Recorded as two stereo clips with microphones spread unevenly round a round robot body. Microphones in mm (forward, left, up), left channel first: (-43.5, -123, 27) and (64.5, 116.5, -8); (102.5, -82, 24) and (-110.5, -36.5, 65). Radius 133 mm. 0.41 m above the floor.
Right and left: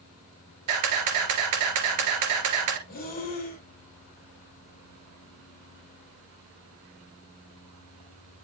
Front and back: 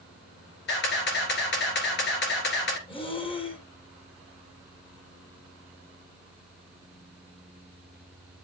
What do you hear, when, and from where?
0.7 s a camera shutter: 40° left, 1.9 m
2.9 s breathing: 60° right, 1.9 m